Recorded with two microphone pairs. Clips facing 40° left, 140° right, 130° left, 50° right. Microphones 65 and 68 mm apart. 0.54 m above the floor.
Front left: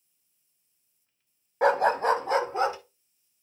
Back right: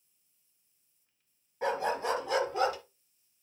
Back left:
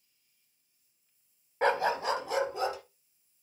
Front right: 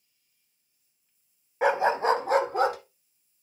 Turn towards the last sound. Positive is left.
turn(degrees=-25)